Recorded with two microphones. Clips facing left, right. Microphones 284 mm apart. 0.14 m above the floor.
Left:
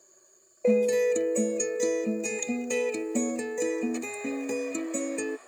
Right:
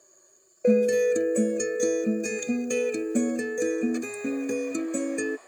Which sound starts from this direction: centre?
A guitar, at 0.6 s.